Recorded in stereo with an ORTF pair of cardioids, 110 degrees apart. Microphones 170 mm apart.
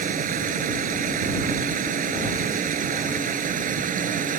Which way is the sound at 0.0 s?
55° right.